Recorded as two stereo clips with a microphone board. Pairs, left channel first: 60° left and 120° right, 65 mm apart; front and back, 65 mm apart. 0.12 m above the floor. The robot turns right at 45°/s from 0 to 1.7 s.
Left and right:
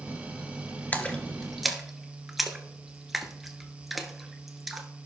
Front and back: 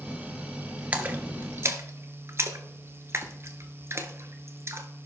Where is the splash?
120° left, 0.8 m; by 4.9 s 155° left, 0.8 m.